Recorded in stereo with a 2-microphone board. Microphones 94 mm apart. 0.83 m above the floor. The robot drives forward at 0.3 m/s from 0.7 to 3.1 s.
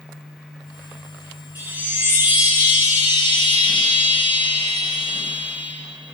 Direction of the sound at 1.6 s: 20° right (ahead or behind).